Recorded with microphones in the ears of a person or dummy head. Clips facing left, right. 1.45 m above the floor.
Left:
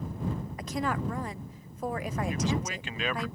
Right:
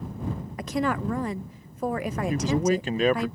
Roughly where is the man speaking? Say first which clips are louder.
Right 11 dB; right.